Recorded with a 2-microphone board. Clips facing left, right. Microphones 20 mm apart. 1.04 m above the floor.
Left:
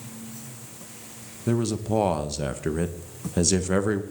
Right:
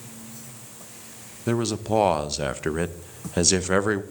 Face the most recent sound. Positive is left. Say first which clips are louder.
# right 1 dB
turn(degrees=-25)  # may be behind; listen again after turning